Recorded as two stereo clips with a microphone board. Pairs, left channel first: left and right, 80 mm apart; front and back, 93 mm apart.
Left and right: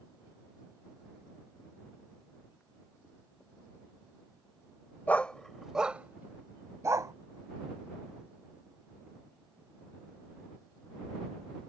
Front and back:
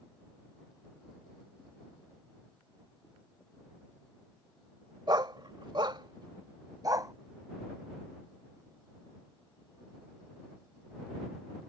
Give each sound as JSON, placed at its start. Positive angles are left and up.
{"t": 5.1, "sound": "a dog barking", "azimuth_deg": 155}